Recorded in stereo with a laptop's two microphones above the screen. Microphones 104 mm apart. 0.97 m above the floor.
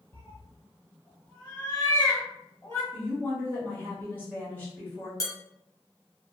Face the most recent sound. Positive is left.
turn(degrees=30)  # may be behind; listen again after turning